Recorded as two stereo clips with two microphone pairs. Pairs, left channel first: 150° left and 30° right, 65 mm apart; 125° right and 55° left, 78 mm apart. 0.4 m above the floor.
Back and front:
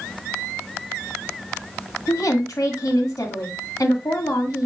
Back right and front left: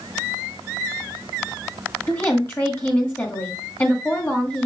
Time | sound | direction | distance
2.1 | a woman speaking | 175° left | 1.8 m